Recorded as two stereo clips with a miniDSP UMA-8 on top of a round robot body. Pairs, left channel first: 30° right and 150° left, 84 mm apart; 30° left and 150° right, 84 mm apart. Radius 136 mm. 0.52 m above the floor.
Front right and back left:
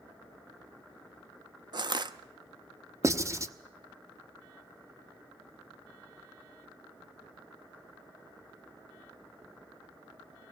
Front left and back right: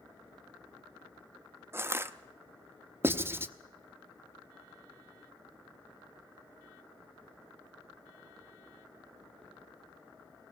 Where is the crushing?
155° left, 0.9 m.